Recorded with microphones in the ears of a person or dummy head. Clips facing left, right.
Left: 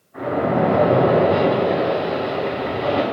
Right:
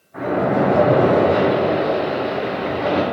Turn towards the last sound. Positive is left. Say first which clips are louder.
# right 1 dB
turn(degrees=-30)  # may be behind; listen again after turning